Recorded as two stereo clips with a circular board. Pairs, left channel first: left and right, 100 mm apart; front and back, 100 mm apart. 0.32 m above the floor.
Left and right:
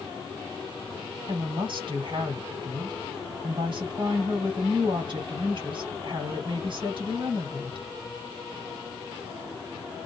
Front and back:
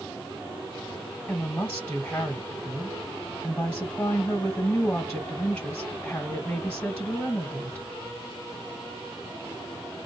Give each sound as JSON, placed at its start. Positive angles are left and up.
{"t": 1.3, "sound": "a woman speaking", "azimuth_deg": -75, "distance_m": 1.7}